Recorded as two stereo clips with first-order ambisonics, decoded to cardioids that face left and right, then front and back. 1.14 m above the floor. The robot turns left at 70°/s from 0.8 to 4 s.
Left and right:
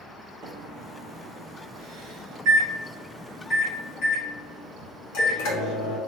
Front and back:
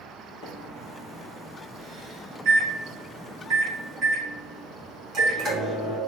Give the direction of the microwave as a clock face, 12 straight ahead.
1 o'clock.